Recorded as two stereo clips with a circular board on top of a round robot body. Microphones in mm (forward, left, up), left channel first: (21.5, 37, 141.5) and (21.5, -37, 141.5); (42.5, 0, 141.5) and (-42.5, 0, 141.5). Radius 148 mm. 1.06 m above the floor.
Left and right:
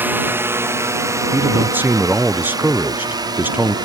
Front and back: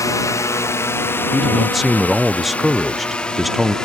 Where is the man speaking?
90° right.